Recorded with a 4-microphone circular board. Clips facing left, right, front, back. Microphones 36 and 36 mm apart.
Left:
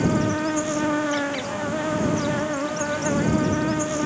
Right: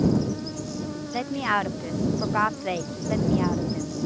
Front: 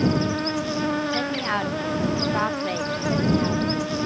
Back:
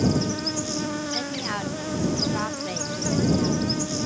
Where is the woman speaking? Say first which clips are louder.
Right 1 dB, front 5 dB; 70° right.